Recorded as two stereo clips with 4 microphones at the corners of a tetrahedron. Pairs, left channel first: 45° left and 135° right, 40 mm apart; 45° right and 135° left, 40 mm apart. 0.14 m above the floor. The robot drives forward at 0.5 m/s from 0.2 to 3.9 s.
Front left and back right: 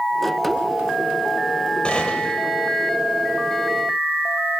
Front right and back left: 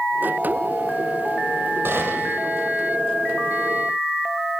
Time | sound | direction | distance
1.9 | a gunshot | 110° left | 4.5 m